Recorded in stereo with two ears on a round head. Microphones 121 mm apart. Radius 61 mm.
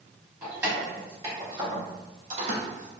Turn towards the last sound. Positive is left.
turn(degrees=-65)  # may be behind; listen again after turning